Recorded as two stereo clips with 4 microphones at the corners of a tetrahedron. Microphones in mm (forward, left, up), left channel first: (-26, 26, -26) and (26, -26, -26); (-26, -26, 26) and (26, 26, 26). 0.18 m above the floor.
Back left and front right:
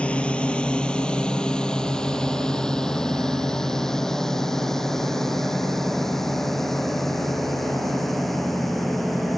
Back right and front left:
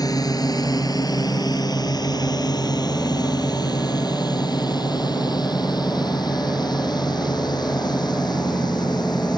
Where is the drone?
150° right; by 9.4 s 135° right.